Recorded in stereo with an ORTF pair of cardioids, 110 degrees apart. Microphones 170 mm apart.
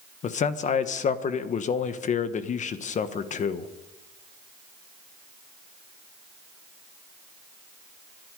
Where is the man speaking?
45° left, 1.4 m.